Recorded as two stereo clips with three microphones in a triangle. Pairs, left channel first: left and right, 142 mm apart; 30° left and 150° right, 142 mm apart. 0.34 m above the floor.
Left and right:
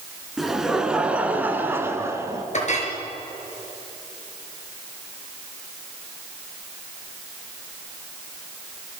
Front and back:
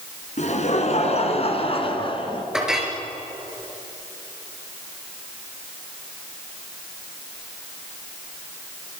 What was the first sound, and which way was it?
Laughter, straight ahead.